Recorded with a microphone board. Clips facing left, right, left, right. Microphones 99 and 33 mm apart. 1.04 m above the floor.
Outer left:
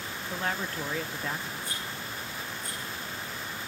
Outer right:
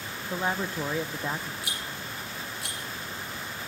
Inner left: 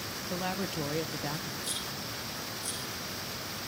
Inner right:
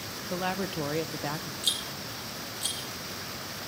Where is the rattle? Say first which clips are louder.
Even, inner right 5 dB; 80° right, 8 m.